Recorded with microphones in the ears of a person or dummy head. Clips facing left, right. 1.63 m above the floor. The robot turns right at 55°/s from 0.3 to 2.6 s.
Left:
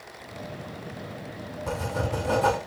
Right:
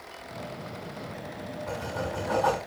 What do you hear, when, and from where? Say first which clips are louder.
1.7 s writing: left 4 dB; 100° left, 1.9 m; by 2.6 s 150° left, 1.9 m